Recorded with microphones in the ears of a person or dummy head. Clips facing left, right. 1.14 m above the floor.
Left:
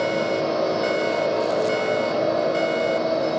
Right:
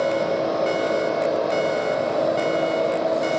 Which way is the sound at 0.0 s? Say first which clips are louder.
Right 1 dB; 40° left (ahead or behind).